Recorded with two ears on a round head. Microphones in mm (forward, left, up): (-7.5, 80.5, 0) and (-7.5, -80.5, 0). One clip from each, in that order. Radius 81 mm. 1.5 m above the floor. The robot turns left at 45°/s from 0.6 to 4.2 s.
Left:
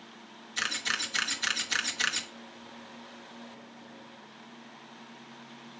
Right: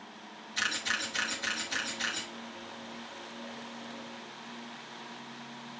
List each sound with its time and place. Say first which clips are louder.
0.6 s a camera shutter: left 1 dB; 10° left (ahead or behind), 1.1 m; by 2.3 s 50° left (ahead or behind), 1.1 m